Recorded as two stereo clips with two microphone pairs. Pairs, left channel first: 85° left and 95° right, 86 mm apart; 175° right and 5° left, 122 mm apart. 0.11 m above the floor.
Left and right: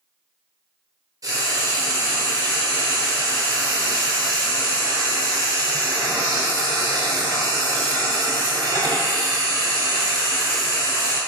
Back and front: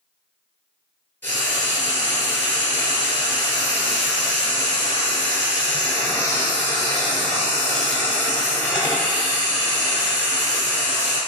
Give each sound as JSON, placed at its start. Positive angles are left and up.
{"t": 1.2, "sound": "frying", "azimuth_deg": -110, "distance_m": 1.7}